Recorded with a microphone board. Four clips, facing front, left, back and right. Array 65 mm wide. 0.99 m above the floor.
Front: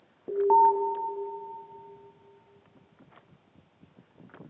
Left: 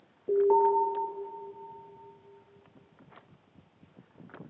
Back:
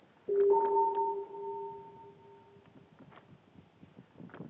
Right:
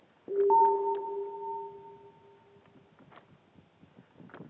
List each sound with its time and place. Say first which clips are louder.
0.3 s an alarm: even, front 6 dB; 10° right, 2.5 m